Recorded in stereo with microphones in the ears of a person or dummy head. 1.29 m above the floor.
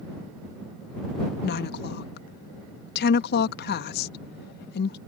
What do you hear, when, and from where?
1.4 s a woman speaking: 60° left (ahead or behind)